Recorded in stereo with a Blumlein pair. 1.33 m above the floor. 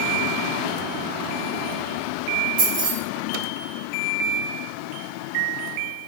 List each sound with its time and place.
2.6 s keys jangling: 45° right, 1.9 m